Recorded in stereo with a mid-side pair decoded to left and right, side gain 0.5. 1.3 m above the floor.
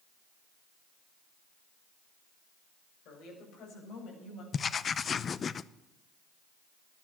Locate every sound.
3.0 s a woman speaking: 70° left, 6.5 m; by 4.4 s 65° left, 8 m
4.5 s writing: 40° left, 0.7 m